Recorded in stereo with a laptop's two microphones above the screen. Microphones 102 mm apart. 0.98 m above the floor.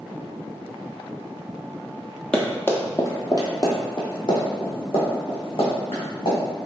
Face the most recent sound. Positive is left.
turn(degrees=70)  # may be behind; listen again after turning